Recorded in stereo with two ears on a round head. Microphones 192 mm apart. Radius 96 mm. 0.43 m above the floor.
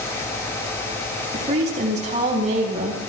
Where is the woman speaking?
35° right (ahead or behind), 4 m.